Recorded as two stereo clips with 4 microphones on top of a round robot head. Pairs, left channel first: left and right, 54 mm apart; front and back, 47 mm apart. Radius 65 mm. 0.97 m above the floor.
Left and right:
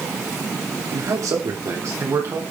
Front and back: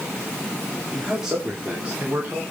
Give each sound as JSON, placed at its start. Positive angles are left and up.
{"t": 0.9, "sound": "a man speaking", "azimuth_deg": -95, "distance_m": 3.0}